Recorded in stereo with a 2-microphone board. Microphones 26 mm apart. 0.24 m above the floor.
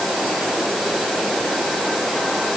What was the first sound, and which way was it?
Only background noise.